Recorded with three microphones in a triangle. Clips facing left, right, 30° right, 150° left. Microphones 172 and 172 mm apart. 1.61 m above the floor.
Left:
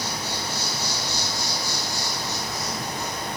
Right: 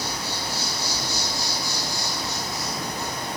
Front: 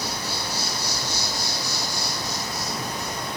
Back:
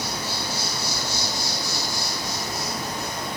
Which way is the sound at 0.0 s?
145° right.